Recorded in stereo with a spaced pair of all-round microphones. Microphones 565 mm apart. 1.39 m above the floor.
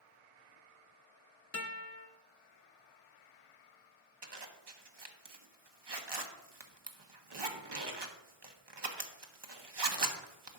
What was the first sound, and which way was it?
A guitar, 30° left (ahead or behind).